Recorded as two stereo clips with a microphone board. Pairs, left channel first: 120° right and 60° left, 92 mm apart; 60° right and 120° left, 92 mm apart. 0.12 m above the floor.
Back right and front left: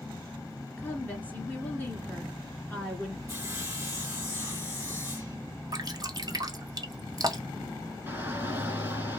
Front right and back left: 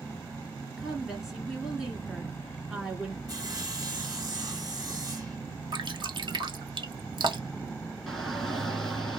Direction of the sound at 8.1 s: 30° left.